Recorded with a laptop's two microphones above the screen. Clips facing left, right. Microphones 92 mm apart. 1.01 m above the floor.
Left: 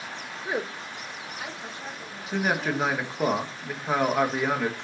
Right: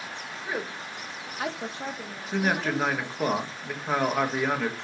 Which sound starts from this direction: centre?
A man speaking, at 2.3 s.